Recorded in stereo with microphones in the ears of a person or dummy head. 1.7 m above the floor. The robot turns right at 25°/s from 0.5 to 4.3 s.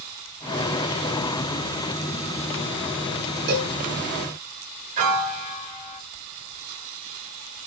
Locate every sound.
3.5 s a cowbell: 60° right (ahead or behind), 6.5 m; by 3.7 s 55° right (ahead or behind), 6.5 m
5.0 s a piano: 50° right (ahead or behind), 3.5 m